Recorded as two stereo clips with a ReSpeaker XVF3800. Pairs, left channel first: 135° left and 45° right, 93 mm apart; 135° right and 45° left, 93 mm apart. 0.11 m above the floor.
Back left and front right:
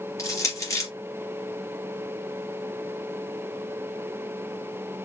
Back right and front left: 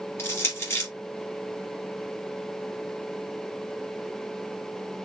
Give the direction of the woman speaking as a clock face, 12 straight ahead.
I don't hear a woman speaking.